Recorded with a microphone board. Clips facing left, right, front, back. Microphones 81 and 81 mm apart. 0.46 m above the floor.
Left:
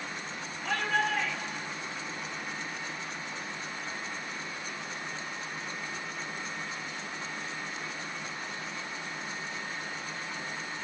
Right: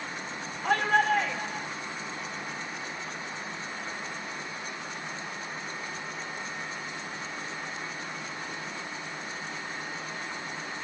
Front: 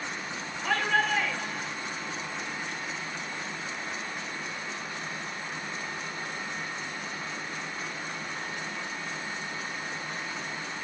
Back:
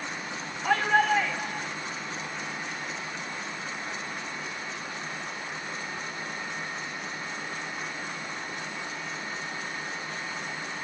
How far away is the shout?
About 2.5 m.